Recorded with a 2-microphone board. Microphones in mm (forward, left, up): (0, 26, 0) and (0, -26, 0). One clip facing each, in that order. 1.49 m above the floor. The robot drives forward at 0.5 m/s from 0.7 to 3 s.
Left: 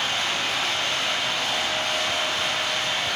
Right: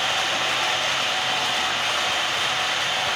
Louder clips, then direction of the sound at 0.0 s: Right 2 dB; 85° right.